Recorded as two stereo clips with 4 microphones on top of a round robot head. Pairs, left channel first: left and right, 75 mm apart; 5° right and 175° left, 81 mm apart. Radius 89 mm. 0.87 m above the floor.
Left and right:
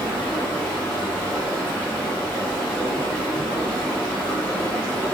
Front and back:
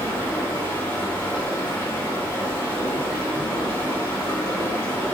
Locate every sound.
0.0 s running water: 35° left, 1.0 m